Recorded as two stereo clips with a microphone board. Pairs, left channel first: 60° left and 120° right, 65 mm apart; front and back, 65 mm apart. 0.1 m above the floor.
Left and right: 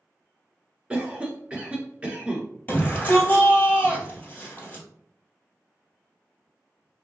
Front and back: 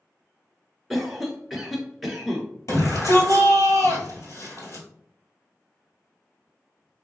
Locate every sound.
0.9 s a cough: 95° right, 1.1 m
2.7 s a shout: 5° left, 2 m